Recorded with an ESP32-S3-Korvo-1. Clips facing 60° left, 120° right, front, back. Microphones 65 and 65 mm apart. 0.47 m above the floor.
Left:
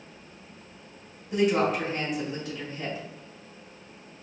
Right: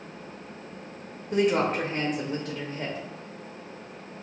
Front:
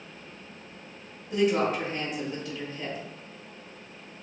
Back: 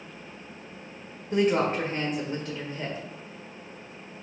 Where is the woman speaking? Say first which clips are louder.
Even, back 1 dB; 140° right, 1.1 m.